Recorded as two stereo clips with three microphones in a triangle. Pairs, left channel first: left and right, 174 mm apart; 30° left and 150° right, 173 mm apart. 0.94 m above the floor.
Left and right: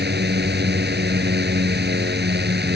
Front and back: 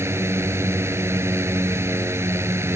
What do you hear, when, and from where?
0.0 s a drone: 75° right